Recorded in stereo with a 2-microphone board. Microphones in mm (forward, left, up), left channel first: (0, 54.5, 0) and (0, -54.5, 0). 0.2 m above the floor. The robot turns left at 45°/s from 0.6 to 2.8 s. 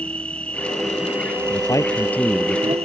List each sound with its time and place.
0.0 s an insect: 15° left; by 2.9 s 85° right
1.5 s a man speaking: 45° left; by 2.8 s 10° right